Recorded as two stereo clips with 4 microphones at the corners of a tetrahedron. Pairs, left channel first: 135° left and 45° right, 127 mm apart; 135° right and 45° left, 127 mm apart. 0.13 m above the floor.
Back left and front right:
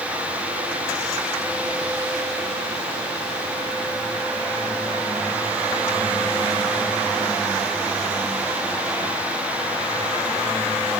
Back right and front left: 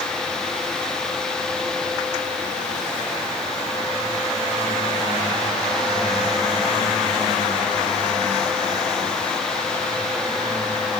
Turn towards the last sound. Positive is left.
No sound to turn to.